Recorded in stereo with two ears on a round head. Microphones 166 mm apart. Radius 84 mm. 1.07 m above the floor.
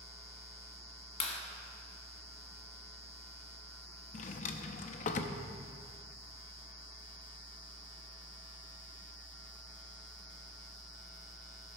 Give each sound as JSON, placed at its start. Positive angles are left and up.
{"t": 1.2, "sound": "a clap", "side_deg": 35, "distance_m": 1.4}
{"t": 4.1, "sound": "a drawer", "side_deg": 40, "distance_m": 0.6}